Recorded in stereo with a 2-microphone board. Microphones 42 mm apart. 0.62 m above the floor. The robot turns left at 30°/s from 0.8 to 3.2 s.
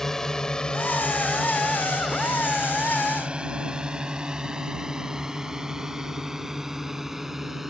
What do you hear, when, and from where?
0.0 s a drone: 10° left (ahead or behind); by 7.7 s 5° right (ahead or behind)